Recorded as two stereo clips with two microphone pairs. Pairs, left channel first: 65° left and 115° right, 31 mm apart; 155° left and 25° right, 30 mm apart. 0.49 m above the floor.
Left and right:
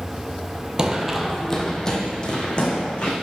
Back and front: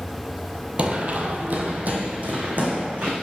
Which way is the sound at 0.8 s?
55° right.